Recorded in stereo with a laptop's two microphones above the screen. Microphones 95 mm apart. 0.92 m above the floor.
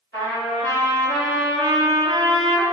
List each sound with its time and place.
0.1 s a trumpet: 25° left (ahead or behind), 1.4 m